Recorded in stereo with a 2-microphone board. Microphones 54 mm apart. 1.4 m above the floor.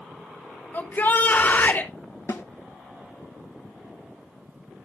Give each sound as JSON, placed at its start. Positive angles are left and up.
{"t": 0.7, "sound": "a shout", "side_deg": 40, "distance_m": 3.0}
{"t": 2.3, "sound": "a snare drum", "side_deg": 65, "distance_m": 1.4}